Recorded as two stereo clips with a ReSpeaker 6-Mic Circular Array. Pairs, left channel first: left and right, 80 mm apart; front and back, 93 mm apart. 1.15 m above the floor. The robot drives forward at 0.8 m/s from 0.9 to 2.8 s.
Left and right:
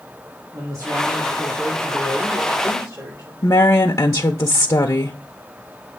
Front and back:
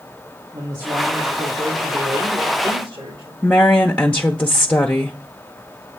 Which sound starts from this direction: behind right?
A man speaking, at 0.5 s.